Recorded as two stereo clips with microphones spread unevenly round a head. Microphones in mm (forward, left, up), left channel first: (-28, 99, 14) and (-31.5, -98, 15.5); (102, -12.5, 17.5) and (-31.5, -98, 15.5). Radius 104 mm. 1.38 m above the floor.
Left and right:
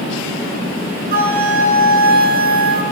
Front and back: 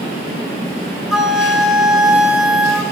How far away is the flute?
About 1.1 m.